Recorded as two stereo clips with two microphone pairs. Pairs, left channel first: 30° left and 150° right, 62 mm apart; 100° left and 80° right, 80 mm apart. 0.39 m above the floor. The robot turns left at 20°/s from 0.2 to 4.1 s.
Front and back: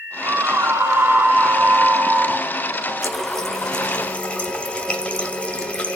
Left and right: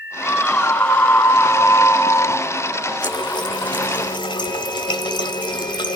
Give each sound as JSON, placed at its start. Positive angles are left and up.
{"t": 0.2, "sound": "a scream", "azimuth_deg": 180, "distance_m": 2.5}
{"t": 3.0, "sound": "a running tap", "azimuth_deg": 120, "distance_m": 1.8}